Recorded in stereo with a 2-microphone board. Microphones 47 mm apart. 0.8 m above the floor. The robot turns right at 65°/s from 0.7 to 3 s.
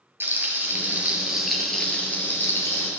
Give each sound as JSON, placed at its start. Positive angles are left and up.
{"t": 0.2, "sound": "frying", "azimuth_deg": -55, "distance_m": 3.0}